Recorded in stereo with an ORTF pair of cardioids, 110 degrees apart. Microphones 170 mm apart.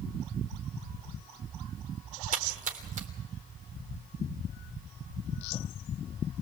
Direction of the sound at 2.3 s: 50° right.